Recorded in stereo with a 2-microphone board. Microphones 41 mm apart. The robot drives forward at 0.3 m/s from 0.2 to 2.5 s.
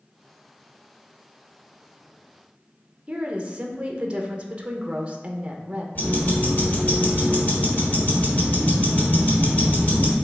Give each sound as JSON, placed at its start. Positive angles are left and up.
{"t": 3.1, "sound": "a woman speaking", "side_deg": -25, "distance_m": 0.5}
{"t": 6.0, "sound": "ticking", "side_deg": 40, "distance_m": 1.3}